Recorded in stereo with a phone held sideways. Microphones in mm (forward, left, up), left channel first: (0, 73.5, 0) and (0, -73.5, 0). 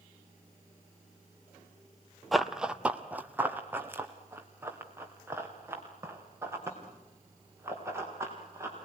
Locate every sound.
2.3 s running footsteps: centre (ahead or behind), 0.9 m; by 8.7 s 20° right (ahead or behind), 7 m